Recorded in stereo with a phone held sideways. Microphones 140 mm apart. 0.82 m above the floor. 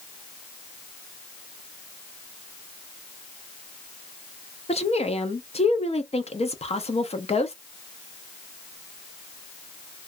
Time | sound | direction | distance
4.7 | a woman speaking | 50° left (ahead or behind) | 0.6 m